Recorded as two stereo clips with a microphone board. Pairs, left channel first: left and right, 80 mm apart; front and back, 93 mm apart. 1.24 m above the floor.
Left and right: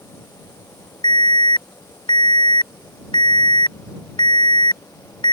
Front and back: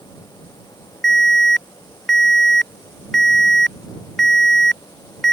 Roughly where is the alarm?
Left.